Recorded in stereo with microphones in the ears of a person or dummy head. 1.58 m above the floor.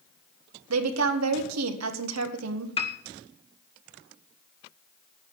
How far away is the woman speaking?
About 1.6 m.